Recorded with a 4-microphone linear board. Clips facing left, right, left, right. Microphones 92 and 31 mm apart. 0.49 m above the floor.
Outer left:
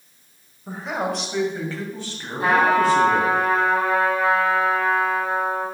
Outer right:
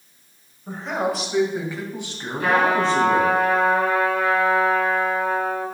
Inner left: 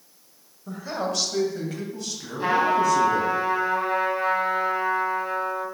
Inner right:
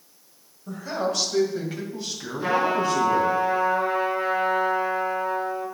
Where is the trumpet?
30° left (ahead or behind), 3.5 m.